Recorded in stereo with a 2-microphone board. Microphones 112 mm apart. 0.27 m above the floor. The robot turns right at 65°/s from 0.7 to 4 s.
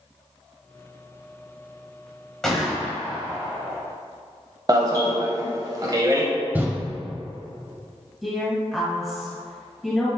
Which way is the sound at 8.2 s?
Centre (ahead or behind).